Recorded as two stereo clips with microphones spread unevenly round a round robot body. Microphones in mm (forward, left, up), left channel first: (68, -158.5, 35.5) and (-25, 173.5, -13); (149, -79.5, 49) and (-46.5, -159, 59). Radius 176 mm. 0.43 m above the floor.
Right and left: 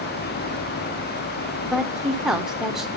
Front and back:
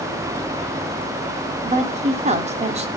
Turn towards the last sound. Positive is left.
turn(degrees=180)